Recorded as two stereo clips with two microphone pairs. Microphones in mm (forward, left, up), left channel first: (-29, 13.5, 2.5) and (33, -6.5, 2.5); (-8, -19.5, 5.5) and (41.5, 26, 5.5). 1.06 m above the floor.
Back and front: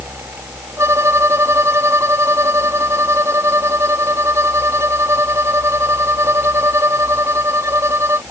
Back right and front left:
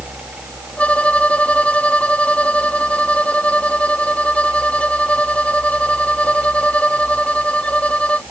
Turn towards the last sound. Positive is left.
turn(degrees=-65)